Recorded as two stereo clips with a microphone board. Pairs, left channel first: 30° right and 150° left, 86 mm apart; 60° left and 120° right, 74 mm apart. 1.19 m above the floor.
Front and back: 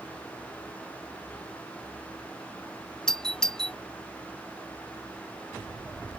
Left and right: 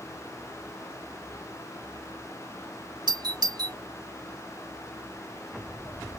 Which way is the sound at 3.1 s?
110° right.